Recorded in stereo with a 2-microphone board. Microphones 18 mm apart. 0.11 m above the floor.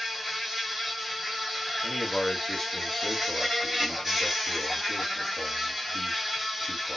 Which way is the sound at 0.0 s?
10° right (ahead or behind).